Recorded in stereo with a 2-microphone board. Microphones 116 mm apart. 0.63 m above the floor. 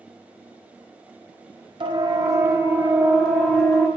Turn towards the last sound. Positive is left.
turn(degrees=5)  # may be behind; listen again after turning